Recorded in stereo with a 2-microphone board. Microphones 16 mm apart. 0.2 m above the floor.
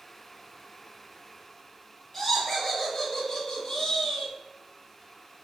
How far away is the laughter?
About 1.3 m.